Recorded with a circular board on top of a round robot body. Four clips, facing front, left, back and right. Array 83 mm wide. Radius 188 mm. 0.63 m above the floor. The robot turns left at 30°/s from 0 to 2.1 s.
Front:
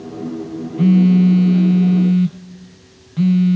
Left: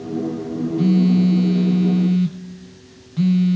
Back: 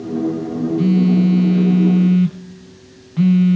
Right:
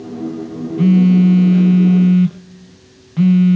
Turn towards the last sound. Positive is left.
turn(degrees=-110)